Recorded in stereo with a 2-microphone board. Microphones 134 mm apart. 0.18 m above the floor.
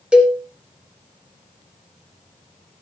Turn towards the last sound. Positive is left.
turn(degrees=-10)  # may be behind; listen again after turning